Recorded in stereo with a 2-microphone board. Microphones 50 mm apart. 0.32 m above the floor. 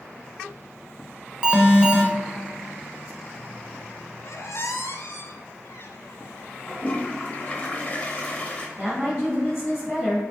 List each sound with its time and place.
1.4 s an alarm: 20° right (ahead or behind), 0.8 m
4.2 s a squeak: 65° left (ahead or behind), 0.6 m
6.7 s a toilet flushing: 25° left (ahead or behind), 0.8 m
8.8 s a woman speaking: centre (ahead or behind), 1.7 m